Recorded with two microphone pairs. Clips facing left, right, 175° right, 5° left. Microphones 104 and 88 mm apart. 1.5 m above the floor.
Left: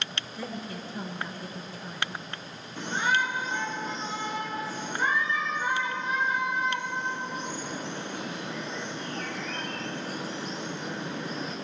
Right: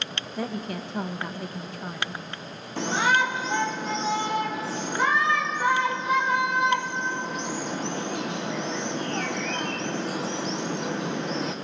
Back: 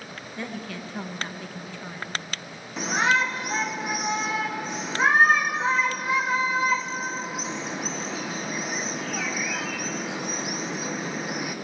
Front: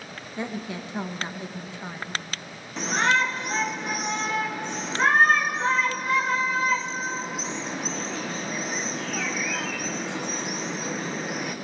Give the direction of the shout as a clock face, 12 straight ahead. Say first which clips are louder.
Right 4 dB, even; 3 o'clock.